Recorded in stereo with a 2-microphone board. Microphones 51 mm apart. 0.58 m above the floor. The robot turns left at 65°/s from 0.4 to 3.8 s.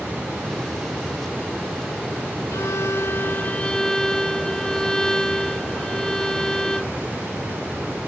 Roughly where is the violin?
Left.